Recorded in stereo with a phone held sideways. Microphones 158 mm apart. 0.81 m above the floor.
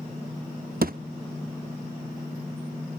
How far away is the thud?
About 0.6 m.